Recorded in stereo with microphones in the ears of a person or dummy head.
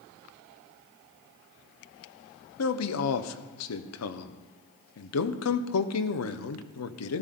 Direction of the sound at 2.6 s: 85° left.